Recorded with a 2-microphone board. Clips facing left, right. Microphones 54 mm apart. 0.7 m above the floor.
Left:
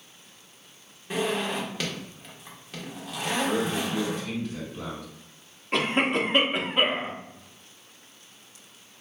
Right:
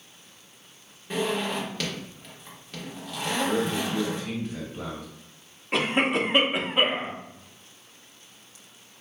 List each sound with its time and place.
1.1 s a zipper: 10° left (ahead or behind), 1.3 m
3.4 s a man speaking: 25° right (ahead or behind), 1.7 m
5.7 s a cough: 5° right (ahead or behind), 1.0 m